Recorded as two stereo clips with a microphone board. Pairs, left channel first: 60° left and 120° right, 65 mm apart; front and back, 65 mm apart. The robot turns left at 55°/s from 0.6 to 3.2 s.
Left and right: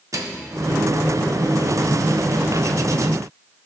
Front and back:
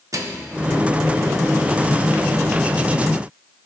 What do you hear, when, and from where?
0.1 s a microwave: 150° right, 0.9 m